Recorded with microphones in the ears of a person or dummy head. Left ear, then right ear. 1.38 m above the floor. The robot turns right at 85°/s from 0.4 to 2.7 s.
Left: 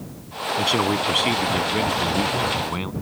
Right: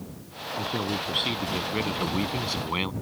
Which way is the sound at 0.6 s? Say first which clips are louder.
Left 9 dB; 95° left.